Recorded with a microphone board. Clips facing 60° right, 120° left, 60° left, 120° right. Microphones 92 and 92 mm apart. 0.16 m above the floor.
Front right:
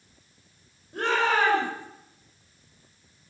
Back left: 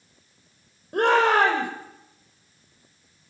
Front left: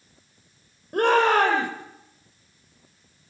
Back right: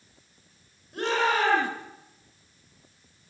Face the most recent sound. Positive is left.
turn(degrees=90)